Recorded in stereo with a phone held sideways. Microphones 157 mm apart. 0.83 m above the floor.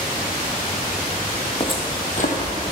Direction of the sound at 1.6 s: 30° left (ahead or behind).